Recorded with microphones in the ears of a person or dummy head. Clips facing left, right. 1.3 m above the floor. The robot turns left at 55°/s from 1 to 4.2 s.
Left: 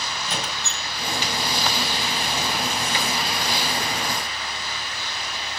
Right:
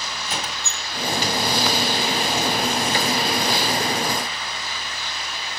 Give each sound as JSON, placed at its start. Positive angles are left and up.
{"t": 0.2, "sound": "a squeak", "side_deg": 0, "distance_m": 1.9}